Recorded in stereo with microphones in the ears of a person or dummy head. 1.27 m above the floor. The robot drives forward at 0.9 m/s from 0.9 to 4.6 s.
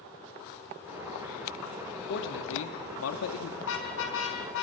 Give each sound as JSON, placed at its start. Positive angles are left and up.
{"t": 2.1, "sound": "a man speaking", "side_deg": 65, "distance_m": 2.5}
{"t": 3.6, "sound": "a car horn", "side_deg": 70, "distance_m": 6.0}